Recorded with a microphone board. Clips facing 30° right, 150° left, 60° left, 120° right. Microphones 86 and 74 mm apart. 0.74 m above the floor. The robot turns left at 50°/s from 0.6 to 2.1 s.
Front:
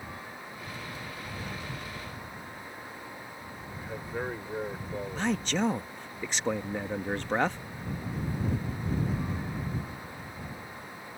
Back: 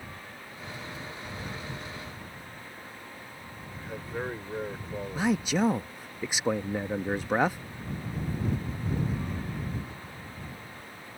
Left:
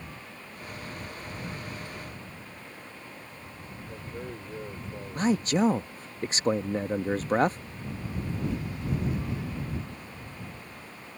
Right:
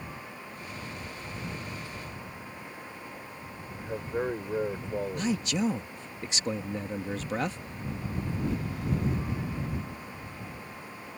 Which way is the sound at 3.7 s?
120° right.